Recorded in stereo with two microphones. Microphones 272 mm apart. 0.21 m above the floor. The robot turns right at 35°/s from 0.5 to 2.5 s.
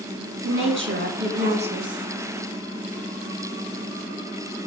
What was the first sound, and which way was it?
A woman speaking, 70° right.